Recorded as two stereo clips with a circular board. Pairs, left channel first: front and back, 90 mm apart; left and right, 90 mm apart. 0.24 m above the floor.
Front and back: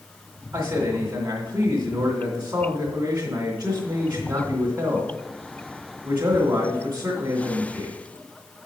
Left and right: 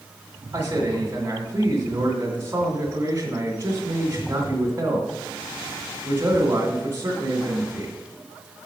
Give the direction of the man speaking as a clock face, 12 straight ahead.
5 o'clock.